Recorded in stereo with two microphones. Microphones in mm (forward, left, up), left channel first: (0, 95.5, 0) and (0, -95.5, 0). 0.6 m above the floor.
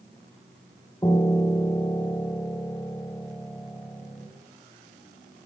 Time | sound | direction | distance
1.0 | a piano | 20° left (ahead or behind) | 4 m